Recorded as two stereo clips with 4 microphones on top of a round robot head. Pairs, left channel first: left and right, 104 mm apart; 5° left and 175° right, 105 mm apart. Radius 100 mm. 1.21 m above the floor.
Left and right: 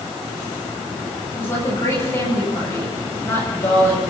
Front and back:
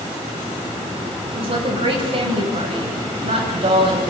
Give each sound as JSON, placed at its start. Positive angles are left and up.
{"t": 1.3, "sound": "a woman speaking", "azimuth_deg": 155, "distance_m": 9.0}